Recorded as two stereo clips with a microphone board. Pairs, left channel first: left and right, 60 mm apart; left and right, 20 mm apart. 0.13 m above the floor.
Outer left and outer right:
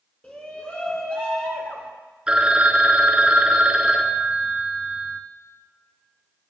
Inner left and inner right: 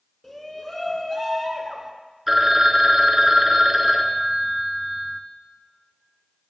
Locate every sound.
0.2 s a shout: 20° left (ahead or behind), 1.1 m
2.3 s a phone ringing: 20° right (ahead or behind), 0.8 m